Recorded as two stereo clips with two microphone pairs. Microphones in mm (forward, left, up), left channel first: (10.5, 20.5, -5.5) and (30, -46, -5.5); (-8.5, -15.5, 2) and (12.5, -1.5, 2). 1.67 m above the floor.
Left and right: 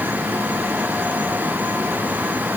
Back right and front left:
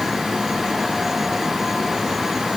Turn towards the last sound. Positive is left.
No sound to turn to.